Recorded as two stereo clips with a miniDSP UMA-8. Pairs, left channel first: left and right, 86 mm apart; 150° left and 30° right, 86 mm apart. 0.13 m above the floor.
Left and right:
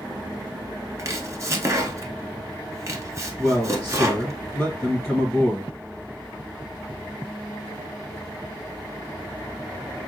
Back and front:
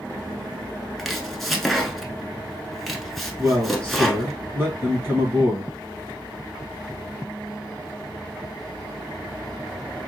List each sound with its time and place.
1.0 s chopping: 120° right, 0.8 m
3.4 s a man speaking: 5° left, 2.5 m